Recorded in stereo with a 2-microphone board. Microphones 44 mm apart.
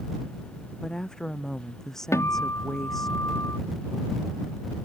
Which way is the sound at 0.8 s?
15° left (ahead or behind).